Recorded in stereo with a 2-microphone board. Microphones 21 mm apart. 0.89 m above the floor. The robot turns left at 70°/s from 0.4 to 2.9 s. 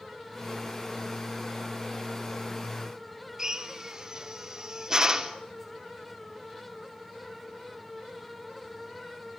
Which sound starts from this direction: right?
A drill, at 3.4 s.